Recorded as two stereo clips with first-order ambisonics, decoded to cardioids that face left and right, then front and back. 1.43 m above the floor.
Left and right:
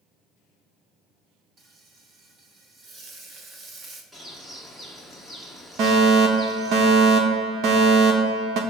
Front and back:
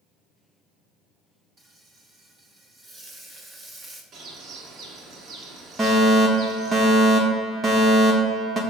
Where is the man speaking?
No man speaking in this recording.